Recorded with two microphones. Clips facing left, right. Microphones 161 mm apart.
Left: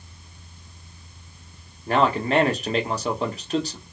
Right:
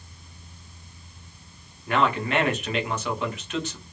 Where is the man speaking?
35° left (ahead or behind), 1.9 m.